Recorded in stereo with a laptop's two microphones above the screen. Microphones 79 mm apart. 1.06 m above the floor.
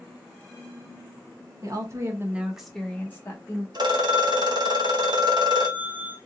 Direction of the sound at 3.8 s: 65° right (ahead or behind).